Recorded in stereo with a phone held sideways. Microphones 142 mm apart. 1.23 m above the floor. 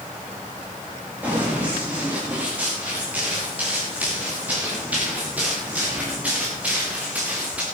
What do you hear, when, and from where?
1.2 s running footsteps: 10° right (ahead or behind), 10 m